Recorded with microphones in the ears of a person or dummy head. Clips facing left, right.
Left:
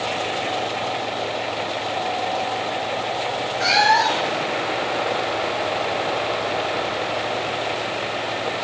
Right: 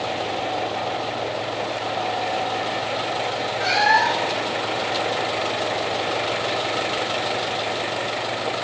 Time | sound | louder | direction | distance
3.6 | a cat meowing | left 2 dB | 55° left (ahead or behind) | 0.6 m